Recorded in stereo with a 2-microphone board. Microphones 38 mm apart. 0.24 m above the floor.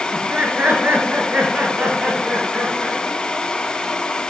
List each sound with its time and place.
0.1 s laughter: 50° right (ahead or behind), 3.5 m; by 3.0 s 75° right (ahead or behind), 5.5 m